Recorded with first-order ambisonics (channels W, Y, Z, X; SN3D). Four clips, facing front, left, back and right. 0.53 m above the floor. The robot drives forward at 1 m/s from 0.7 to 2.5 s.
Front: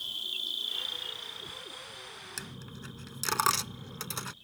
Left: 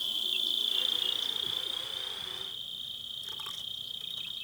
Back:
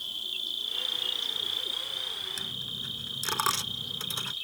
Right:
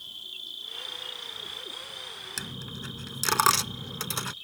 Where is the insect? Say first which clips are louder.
Left 9 dB, back 1 dB; 95° left; by 4.4 s 170° left.